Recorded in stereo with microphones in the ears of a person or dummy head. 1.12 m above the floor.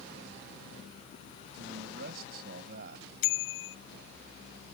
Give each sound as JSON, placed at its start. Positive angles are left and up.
{"t": 1.5, "sound": "a man speaking", "side_deg": -55}
{"t": 3.2, "sound": "a bicycle bell", "side_deg": 75}